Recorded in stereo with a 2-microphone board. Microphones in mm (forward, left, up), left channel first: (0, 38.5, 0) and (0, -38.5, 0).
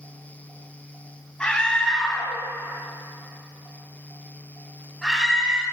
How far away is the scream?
About 6 m.